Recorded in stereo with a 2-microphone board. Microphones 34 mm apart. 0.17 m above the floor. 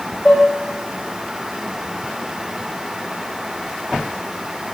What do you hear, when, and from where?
0.2 s dishes clattering: 20° left (ahead or behind), 4 m